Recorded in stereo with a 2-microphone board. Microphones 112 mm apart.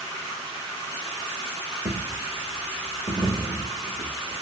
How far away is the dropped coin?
About 0.8 m.